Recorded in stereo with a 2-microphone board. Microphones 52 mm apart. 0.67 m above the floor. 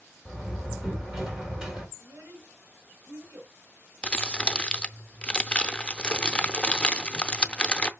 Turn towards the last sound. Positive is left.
turn(degrees=20)  # may be behind; listen again after turning